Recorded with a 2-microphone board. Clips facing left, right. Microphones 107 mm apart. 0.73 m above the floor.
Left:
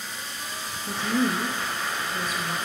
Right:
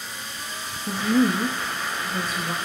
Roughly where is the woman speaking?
Right.